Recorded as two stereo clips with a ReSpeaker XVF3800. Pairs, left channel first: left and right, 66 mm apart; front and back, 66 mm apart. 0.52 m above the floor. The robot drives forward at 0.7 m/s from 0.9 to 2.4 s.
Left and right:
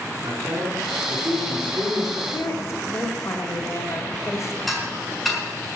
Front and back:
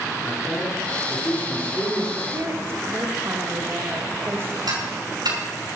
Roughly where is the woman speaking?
Behind left.